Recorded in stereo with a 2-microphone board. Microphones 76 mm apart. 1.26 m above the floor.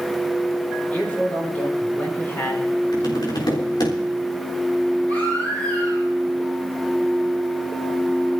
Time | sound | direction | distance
0.9 | a man speaking | 20° left (ahead or behind) | 5.5 m
2.9 | tapping | 90° left | 3.5 m
5.1 | a baby crying | 20° left (ahead or behind) | 9 m